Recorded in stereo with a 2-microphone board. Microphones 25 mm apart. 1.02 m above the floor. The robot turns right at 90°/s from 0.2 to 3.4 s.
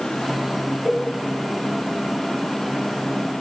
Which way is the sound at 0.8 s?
30° right (ahead or behind).